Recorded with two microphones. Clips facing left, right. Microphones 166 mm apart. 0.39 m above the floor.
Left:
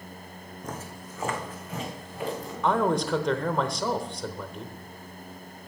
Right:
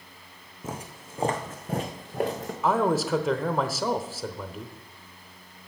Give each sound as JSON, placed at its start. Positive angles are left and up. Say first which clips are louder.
{"t": 0.6, "sound": "footsteps", "louder": "right 2 dB", "side_deg": -5, "distance_m": 1.5}
{"t": 2.6, "sound": "a man speaking", "louder": "right 1 dB", "side_deg": -5, "distance_m": 0.9}